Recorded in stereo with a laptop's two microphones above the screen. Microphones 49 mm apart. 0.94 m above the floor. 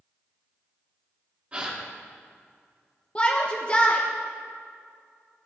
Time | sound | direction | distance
1.5 | a gasp | 25° right (ahead or behind) | 2 m
3.1 | a shout | 25° left (ahead or behind) | 0.7 m